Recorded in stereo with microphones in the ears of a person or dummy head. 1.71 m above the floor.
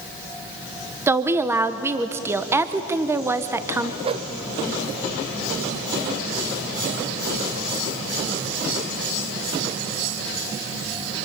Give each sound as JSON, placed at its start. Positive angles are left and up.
{"t": 1.1, "sound": "a woman speaking", "side_deg": -10, "distance_m": 0.8}
{"t": 4.0, "sound": "a whoosh", "side_deg": -30, "distance_m": 0.8}